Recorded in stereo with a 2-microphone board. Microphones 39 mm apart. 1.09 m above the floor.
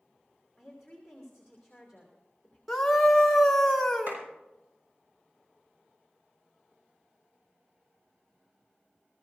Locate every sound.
0.6 s a woman speaking: centre (ahead or behind), 3 m
2.7 s a scream: 5° left (ahead or behind), 1.0 m
4.1 s a clap: 50° right (ahead or behind), 5 m